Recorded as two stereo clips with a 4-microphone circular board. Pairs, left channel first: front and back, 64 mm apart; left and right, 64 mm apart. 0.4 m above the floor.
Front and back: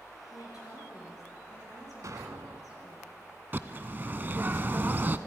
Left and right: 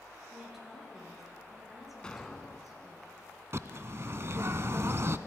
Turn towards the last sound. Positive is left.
turn(degrees=-130)